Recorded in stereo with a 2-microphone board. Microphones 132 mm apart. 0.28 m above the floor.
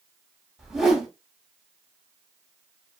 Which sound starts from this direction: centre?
A whoosh, at 0.6 s.